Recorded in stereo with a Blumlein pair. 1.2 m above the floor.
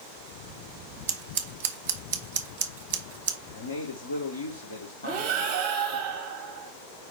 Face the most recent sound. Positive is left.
turn(degrees=-40)